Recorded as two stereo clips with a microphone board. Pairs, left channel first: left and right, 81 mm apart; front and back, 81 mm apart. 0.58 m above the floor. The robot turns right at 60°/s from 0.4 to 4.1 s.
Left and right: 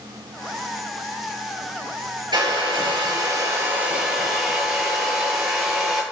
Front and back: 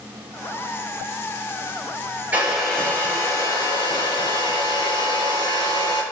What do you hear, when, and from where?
2.3 s a hair dryer: 110° right, 8.5 m; by 6.0 s 5° right, 8.5 m